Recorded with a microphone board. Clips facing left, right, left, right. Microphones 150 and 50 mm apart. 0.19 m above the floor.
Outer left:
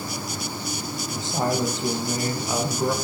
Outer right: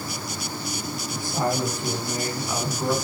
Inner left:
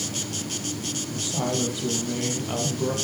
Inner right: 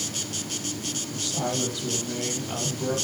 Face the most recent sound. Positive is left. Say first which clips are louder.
# outer left 1 dB, inner left 2 dB
turn(degrees=20)  # may be behind; listen again after turning